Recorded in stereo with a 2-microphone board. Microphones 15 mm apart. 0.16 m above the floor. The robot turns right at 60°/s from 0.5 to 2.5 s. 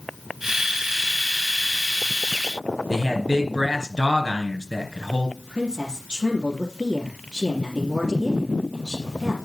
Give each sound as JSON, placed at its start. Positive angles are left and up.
{"t": 2.9, "sound": "a man speaking", "side_deg": -45, "distance_m": 2.0}
{"t": 5.4, "sound": "a woman speaking", "side_deg": -65, "distance_m": 3.5}